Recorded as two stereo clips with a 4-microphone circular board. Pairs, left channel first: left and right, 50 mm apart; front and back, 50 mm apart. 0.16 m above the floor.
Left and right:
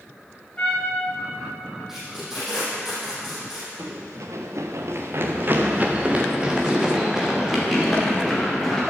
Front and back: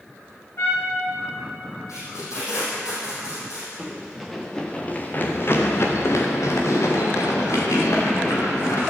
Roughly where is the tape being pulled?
Ahead.